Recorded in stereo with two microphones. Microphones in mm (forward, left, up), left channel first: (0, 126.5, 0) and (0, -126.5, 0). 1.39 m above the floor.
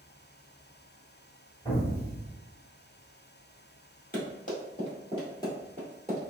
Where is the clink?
I don't hear a clink.